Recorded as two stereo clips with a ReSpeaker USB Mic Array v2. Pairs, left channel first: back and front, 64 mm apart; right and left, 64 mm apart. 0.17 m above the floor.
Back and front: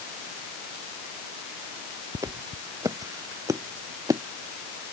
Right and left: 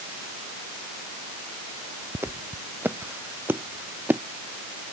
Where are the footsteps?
35° left; by 4.2 s 30° left.